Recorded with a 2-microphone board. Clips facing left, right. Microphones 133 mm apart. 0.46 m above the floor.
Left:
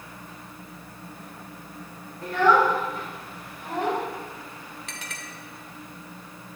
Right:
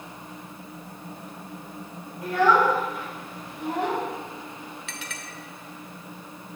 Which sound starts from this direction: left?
A clink, at 4.9 s.